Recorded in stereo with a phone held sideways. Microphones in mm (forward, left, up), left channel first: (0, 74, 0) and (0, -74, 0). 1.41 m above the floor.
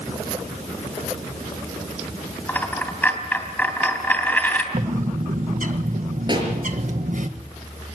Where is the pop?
30° right (ahead or behind), 5 m.